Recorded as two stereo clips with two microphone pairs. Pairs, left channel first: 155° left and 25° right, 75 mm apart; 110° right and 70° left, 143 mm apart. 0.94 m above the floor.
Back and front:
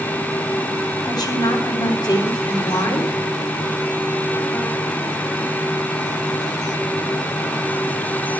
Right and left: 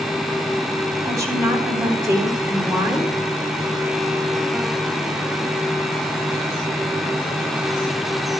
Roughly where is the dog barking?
No dog barking in this recording.